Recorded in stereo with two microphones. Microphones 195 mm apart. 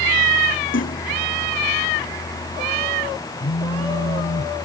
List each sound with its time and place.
0.7 s a splash: 80° left
3.4 s a phone buzzing: 70° left (ahead or behind)